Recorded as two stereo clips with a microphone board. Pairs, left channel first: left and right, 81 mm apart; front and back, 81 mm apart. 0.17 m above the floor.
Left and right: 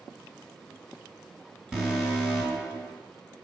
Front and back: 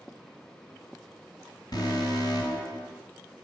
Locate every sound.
1.7 s an alarm: 15° right, 2.5 m